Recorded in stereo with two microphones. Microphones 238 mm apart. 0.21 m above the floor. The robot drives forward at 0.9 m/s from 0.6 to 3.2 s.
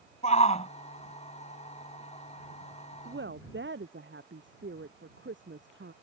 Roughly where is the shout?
Left.